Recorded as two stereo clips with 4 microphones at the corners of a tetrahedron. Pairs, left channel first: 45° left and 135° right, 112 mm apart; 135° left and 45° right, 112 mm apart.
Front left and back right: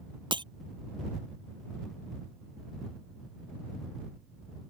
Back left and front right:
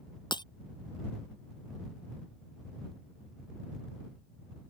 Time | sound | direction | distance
0.3 | breaking glass | 175° right | ?